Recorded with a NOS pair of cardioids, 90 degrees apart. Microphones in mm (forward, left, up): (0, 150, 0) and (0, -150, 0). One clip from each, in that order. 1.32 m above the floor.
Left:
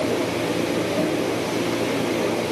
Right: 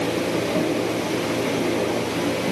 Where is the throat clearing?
I don't hear throat clearing.